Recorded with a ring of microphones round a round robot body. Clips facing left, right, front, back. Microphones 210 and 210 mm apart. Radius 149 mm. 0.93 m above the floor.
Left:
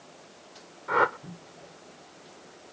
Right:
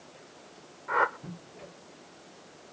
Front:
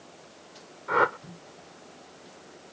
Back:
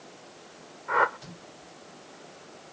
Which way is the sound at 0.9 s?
45° left.